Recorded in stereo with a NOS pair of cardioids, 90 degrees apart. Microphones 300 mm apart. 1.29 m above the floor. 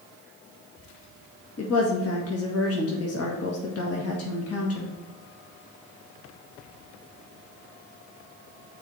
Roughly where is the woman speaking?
Ahead left.